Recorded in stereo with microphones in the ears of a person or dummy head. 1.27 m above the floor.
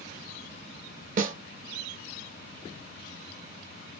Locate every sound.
1.2 s a snare drum: 50° right (ahead or behind), 0.9 m